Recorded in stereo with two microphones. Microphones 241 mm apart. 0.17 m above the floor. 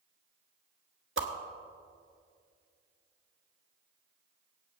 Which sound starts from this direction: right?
A whoosh, at 1.2 s.